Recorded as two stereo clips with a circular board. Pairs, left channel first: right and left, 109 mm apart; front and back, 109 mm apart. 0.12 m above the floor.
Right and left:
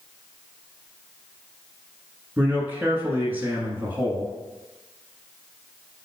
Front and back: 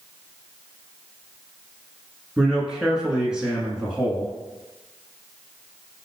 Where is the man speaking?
110° left, 1.1 m.